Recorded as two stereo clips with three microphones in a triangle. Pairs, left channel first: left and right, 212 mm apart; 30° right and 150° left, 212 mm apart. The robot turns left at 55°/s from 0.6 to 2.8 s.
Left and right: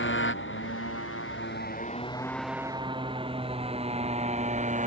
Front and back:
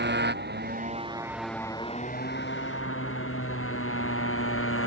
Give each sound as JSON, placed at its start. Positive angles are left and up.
{"t": 0.0, "sound": "a motorcycle", "azimuth_deg": 115}